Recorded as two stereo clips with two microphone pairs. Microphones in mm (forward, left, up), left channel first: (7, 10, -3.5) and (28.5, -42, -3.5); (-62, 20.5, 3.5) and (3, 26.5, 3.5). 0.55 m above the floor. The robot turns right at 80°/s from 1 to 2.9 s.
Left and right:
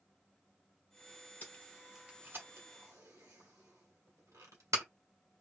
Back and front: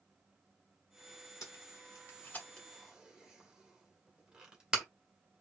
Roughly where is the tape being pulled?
Behind.